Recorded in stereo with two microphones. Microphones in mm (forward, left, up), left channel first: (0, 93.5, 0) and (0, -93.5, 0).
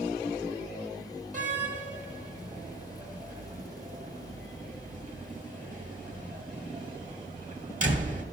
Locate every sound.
1.3 s a door slam: 45° right (ahead or behind), 1.1 m